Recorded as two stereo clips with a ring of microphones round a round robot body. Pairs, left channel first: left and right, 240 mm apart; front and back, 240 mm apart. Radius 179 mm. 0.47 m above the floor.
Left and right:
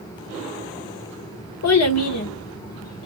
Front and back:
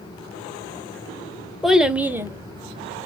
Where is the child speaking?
90° left, 1.4 m; by 3.1 s 120° left, 0.9 m.